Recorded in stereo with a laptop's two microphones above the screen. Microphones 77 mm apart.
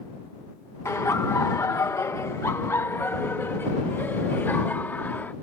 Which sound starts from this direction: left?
Laughter, at 0.8 s.